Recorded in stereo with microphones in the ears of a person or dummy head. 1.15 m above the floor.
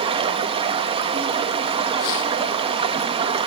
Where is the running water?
30° right (ahead or behind), 0.8 m.